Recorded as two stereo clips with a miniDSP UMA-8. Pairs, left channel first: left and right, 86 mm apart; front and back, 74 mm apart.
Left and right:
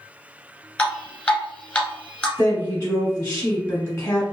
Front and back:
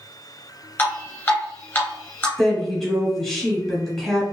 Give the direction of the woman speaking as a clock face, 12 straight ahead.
9 o'clock.